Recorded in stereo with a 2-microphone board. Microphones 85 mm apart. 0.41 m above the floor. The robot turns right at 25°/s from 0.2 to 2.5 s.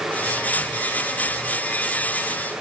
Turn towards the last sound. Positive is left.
No sound to turn to.